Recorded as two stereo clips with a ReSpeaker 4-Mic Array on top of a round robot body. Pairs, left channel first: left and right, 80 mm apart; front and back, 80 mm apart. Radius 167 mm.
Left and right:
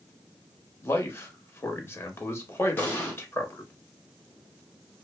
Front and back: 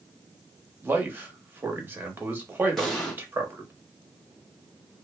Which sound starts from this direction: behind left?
A man speaking, at 0.8 s.